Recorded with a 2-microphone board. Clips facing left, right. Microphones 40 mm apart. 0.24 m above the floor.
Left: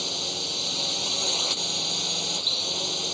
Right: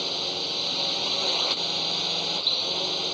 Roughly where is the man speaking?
No man speaking in this recording.